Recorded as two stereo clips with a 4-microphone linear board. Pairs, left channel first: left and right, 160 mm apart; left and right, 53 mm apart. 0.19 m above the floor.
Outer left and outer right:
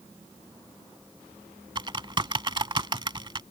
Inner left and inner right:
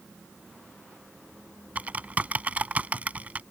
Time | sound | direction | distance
1.8 | typing on a keyboard | 30° right (ahead or behind) | ?